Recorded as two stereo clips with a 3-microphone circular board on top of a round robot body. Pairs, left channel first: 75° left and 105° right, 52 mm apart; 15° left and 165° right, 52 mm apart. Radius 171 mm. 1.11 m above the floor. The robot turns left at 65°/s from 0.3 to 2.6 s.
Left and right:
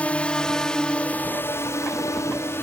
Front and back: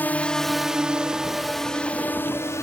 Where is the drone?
30° left; by 2.6 s 35° left.